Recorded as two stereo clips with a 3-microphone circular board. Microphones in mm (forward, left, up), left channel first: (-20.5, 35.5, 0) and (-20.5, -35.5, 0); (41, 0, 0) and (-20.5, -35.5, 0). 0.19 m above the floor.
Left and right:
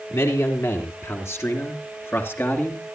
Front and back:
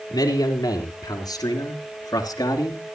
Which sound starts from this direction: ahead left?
A man speaking, at 0.1 s.